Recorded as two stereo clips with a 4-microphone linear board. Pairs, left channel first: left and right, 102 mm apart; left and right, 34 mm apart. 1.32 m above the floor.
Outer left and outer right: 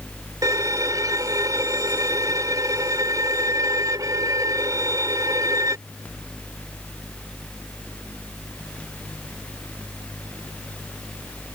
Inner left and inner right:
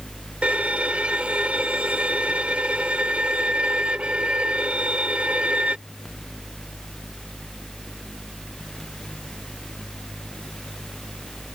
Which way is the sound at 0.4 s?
35° right (ahead or behind).